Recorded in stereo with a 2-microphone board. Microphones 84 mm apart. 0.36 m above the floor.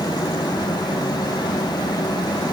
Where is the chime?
No chime in this recording.